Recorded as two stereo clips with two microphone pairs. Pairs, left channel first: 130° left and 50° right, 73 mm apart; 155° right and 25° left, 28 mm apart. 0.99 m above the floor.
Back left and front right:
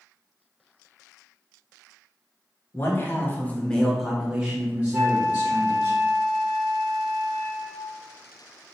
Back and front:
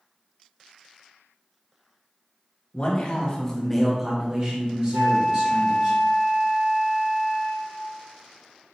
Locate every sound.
2.7 s a man speaking: 175° left, 1.3 m; by 5.9 s straight ahead, 1.9 m
4.9 s a flute: 30° left, 1.4 m